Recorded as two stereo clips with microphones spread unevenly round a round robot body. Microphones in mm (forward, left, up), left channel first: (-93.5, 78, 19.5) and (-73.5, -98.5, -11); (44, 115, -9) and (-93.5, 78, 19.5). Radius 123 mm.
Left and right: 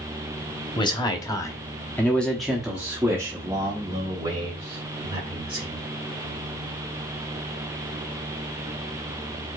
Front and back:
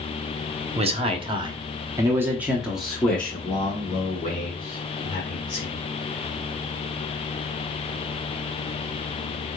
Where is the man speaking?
160° left, 1.2 m; by 5.8 s 30° right, 2 m.